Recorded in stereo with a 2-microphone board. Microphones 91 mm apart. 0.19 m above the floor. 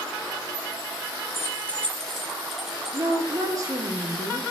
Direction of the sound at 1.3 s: 25° left (ahead or behind).